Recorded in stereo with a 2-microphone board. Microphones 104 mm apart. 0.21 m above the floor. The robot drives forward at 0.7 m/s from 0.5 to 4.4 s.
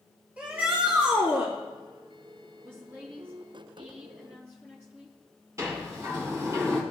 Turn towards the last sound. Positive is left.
turn(degrees=-30)  # may be behind; listen again after turning